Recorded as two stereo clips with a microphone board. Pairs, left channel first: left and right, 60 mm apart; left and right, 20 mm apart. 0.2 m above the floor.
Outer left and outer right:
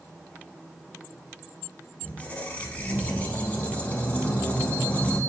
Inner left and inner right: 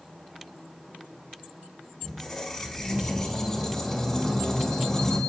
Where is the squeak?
25° left (ahead or behind), 0.6 m.